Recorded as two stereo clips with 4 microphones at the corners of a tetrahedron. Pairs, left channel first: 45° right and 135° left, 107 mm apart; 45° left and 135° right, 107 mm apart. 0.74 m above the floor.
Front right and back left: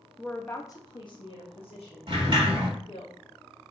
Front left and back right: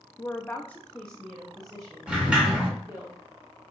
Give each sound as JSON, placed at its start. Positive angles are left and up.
{"t": 0.2, "sound": "a woman speaking", "azimuth_deg": 40, "distance_m": 0.5}
{"t": 2.1, "sound": "a sliding door", "azimuth_deg": 150, "distance_m": 1.7}